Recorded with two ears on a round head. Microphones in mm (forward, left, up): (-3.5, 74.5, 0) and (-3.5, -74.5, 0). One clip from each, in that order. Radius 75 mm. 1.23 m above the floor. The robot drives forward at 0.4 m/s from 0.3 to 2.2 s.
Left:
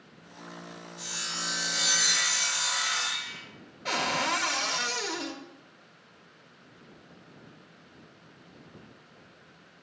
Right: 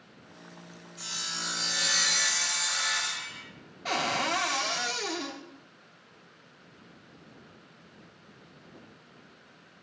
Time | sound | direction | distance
1.0 | sawing | 45° right (ahead or behind) | 2.0 m
3.9 | a cupboard door | centre (ahead or behind) | 0.5 m